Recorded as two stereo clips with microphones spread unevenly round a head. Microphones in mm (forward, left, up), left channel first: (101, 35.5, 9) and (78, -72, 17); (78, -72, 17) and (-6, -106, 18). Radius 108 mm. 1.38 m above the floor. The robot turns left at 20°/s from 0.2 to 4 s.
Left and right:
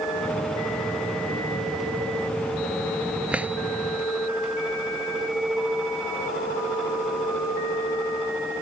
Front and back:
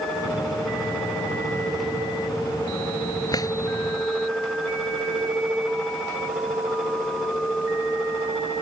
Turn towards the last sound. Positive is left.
turn(degrees=-35)